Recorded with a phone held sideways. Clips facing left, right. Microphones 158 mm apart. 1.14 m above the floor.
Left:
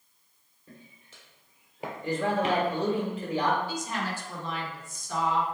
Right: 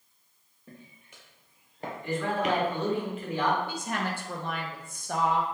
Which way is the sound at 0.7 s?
20° right (ahead or behind).